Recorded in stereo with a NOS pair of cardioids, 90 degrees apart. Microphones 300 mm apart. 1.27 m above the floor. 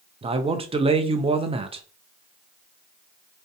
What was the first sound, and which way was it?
A man speaking, 20° right.